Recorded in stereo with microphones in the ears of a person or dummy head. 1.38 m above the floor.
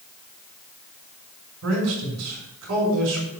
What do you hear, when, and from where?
1.6 s a man speaking: 85° right, 5.5 m